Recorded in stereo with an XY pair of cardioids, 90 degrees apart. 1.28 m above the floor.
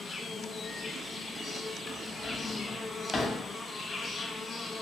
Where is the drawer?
30° left, 1.1 m.